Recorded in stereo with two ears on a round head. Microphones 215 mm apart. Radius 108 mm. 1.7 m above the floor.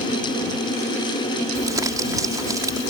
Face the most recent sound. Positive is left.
turn(degrees=-15)  # may be behind; listen again after turning